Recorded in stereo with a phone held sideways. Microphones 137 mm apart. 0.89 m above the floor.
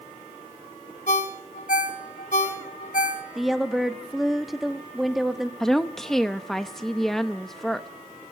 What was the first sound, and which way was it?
A ringtone, 65° left (ahead or behind).